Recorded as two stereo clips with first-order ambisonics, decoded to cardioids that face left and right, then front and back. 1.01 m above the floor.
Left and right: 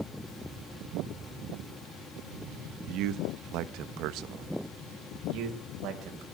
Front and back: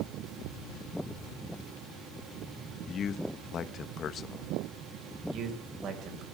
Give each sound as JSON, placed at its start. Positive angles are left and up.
{"t": 2.9, "sound": "a man speaking", "azimuth_deg": -60, "distance_m": 1.0}
{"t": 5.3, "sound": "a man speaking", "azimuth_deg": -130, "distance_m": 4.5}